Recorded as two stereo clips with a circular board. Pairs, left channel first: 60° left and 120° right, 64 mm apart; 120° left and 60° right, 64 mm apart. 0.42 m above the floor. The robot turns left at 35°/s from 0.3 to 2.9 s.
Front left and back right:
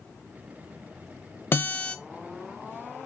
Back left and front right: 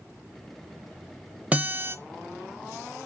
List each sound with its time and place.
1.5 s a guitar: 5° left, 0.6 m; by 2.0 s 10° right, 0.6 m